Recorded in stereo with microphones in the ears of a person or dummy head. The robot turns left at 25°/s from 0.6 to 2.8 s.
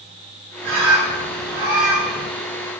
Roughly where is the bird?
Right.